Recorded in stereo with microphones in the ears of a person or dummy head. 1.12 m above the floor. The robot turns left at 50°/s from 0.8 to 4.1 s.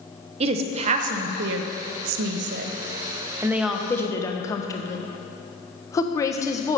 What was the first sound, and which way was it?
A woman speaking, 35° right (ahead or behind).